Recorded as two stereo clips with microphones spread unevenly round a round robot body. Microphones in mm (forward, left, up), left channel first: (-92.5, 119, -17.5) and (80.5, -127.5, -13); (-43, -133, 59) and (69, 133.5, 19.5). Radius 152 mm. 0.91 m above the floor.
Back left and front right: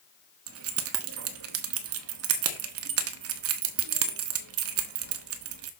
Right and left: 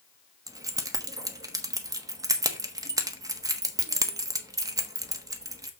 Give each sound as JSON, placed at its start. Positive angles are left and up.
{"t": 0.5, "sound": "keys jangling", "azimuth_deg": -10, "distance_m": 0.9}